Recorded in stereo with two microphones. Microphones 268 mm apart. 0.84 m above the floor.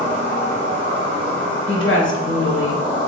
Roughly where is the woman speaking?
Left.